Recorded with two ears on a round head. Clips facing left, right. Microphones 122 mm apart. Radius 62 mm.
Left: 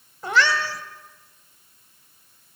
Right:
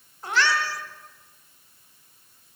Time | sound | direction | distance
0.2 | a cat meowing | 80° left | 2 m